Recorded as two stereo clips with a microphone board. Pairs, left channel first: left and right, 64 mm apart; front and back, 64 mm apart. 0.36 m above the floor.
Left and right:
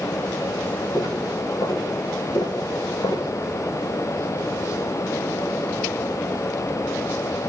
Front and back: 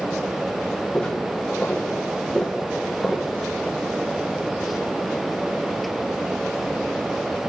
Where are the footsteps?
75° left, 4 m; by 3.3 s 90° left, 3 m.